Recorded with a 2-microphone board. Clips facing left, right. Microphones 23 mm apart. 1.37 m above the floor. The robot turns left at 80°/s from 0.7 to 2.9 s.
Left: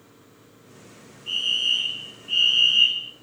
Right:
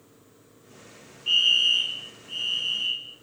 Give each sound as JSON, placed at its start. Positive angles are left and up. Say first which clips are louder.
{"t": 1.3, "sound": "a fire alarm", "louder": "right 3 dB", "azimuth_deg": -150, "distance_m": 1.8}